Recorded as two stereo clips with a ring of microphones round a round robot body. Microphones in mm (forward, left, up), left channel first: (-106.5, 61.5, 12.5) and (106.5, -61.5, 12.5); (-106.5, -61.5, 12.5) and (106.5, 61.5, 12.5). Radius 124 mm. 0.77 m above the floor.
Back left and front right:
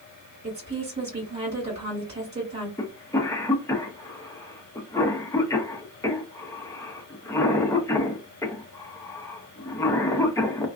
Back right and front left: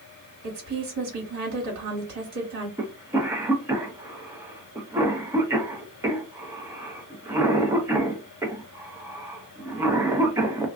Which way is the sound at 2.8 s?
90° left.